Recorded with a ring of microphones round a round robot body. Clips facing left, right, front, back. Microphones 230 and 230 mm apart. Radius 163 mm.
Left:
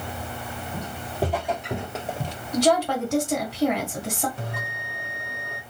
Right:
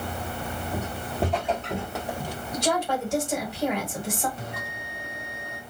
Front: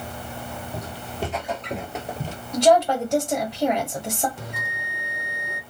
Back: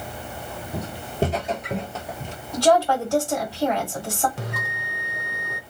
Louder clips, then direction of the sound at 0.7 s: Even, back 9 dB; 175° right.